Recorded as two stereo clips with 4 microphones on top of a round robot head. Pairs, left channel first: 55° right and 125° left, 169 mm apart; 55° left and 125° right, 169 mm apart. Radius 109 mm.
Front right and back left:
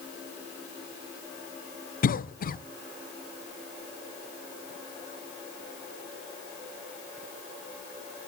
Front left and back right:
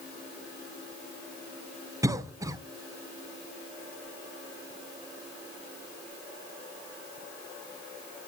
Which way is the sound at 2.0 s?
55° right.